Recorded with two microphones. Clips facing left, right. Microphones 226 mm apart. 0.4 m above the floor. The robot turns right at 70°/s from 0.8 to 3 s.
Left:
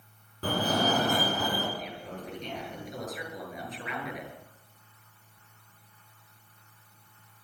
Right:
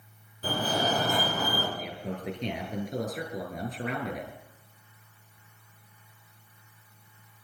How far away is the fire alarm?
About 6.5 m.